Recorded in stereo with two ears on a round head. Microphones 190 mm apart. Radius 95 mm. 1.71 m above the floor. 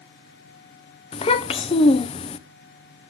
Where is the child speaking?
25° left (ahead or behind), 0.6 m.